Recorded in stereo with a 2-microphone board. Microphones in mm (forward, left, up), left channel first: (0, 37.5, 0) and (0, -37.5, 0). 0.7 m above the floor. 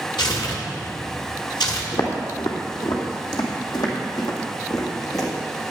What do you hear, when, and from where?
0.2 s tearing paper: 80° left, 1.8 m
1.9 s footsteps: 70° left (ahead or behind), 2 m; by 5.3 s 55° left (ahead or behind), 3 m